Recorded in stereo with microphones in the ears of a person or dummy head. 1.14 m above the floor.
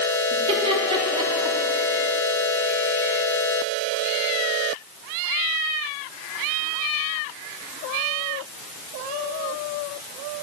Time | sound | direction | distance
0.3 | laughter | 30° right (ahead or behind) | 2.5 m